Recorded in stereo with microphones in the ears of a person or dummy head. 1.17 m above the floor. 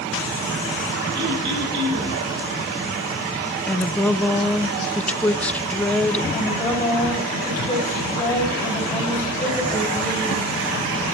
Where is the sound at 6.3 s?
15° left (ahead or behind), 6 m.